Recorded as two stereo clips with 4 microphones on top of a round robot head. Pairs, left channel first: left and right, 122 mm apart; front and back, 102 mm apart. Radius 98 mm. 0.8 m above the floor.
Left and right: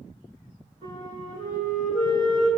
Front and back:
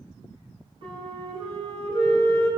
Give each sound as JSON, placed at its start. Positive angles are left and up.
{"t": 0.8, "sound": "a flute", "azimuth_deg": 145, "distance_m": 4.0}